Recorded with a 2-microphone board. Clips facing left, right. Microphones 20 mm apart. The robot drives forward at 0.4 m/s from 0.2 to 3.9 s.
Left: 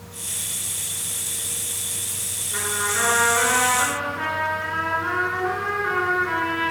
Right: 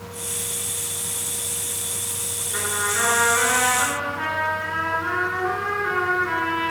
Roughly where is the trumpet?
Centre.